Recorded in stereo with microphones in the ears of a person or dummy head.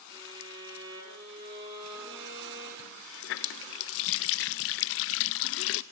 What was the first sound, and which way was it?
A violin, 30° right (ahead or behind).